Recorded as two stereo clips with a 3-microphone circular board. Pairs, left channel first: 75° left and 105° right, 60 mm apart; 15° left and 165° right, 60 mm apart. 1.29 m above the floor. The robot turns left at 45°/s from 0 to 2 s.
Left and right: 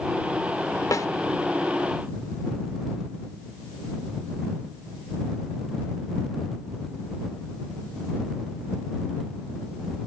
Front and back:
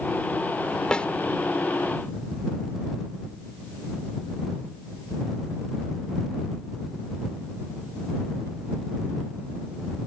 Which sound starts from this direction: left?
A snare drum, at 0.9 s.